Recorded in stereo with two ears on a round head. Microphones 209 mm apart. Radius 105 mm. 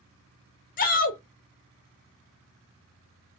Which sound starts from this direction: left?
A shout, at 0.8 s.